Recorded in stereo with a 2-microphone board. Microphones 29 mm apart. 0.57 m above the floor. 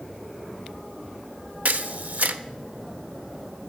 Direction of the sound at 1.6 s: 65° right (ahead or behind).